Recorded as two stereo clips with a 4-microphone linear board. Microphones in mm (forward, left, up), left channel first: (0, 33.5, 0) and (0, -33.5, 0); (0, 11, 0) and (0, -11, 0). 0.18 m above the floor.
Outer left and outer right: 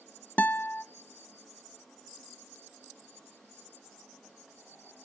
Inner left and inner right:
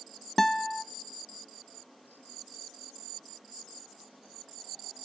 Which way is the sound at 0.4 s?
20° left (ahead or behind).